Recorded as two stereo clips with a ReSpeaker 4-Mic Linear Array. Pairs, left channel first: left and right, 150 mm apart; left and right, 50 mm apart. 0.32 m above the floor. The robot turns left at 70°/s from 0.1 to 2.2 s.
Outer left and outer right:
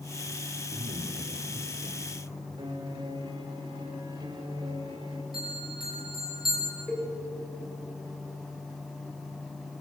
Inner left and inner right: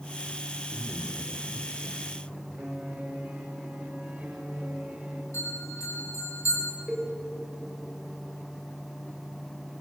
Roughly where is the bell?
Left.